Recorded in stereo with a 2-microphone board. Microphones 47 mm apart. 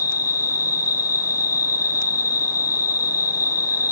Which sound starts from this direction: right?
An insect, at 0.0 s.